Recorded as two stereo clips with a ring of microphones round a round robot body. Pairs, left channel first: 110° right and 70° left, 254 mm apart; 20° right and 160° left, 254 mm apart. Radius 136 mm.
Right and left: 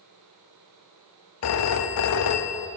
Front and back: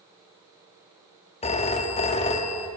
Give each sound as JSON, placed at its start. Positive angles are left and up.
{"t": 1.4, "sound": "a phone ringing", "azimuth_deg": -90, "distance_m": 0.7}